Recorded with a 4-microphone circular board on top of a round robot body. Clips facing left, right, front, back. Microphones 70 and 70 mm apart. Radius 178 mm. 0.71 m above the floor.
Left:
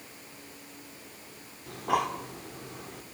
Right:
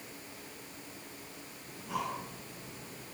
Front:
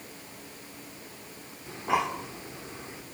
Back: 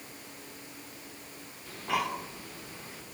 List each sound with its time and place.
1.7 s breathing: 70° left, 2.5 m